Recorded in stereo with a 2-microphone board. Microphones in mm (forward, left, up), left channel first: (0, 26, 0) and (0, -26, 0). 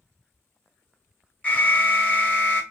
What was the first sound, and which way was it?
An alarm, 30° left (ahead or behind).